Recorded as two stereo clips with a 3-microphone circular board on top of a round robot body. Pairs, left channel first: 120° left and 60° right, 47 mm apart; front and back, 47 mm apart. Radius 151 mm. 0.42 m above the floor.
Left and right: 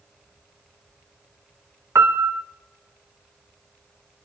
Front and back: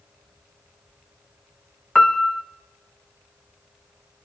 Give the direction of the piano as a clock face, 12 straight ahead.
3 o'clock.